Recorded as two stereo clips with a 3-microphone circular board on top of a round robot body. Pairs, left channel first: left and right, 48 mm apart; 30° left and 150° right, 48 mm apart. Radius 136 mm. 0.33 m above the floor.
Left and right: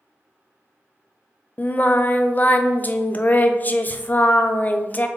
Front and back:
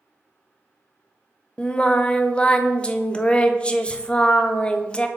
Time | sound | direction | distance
1.6 | singing | 80° left | 0.7 m